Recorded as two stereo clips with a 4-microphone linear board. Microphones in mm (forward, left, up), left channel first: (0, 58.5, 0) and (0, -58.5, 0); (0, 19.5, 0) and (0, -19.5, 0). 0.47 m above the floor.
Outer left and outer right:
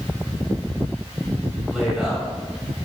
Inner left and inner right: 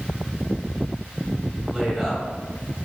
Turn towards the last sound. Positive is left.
turn(degrees=-5)  # may be behind; listen again after turning